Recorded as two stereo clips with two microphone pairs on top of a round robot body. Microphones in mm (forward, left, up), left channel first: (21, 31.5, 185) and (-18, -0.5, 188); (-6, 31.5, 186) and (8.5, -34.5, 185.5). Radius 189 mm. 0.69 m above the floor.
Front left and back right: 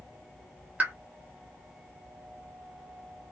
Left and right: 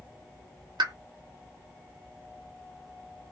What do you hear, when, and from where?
0.8 s a pop: 85° right, 0.7 m